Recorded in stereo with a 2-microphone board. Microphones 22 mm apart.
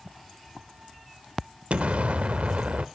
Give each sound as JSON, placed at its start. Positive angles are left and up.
{"t": 1.7, "sound": "an explosion", "side_deg": -85, "distance_m": 0.7}